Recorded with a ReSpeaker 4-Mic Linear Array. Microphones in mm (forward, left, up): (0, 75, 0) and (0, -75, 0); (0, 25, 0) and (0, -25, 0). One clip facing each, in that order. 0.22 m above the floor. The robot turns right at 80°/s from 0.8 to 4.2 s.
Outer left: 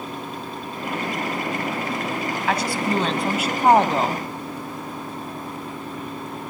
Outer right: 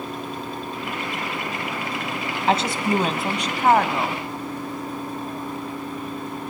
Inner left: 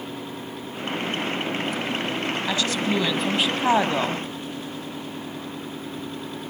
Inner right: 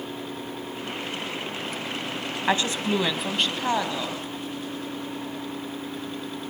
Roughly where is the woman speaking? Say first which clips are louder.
Outer right 3 dB, inner right 3 dB; ahead right.